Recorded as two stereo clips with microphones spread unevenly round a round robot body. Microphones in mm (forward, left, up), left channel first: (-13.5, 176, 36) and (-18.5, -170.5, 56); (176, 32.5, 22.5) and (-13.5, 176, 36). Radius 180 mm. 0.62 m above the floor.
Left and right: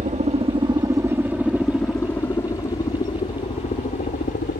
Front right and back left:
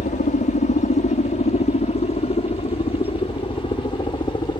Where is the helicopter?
35° right; by 4.6 s 30° left.